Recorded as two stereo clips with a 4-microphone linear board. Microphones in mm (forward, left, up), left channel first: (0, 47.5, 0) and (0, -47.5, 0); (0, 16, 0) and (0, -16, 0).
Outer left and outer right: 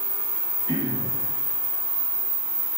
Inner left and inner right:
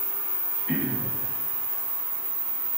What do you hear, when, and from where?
0.7 s throat clearing: 45° left (ahead or behind), 1.4 m